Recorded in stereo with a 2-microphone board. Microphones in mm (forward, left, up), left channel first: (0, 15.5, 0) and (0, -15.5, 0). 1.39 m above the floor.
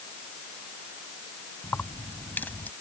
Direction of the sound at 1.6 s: 85° left.